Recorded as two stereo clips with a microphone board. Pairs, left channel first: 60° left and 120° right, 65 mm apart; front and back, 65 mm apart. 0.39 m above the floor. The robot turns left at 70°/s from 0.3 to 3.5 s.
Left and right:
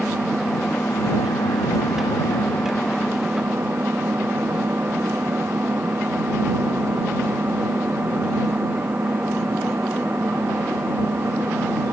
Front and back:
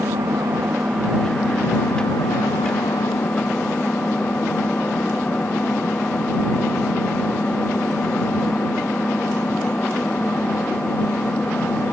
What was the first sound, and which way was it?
An engine running, 155° left.